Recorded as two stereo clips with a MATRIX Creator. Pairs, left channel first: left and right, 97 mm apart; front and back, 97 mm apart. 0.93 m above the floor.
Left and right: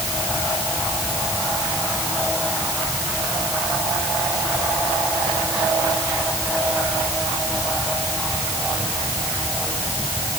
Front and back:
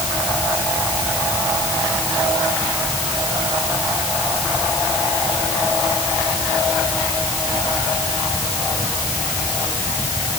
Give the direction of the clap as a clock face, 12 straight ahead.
No clap in this recording.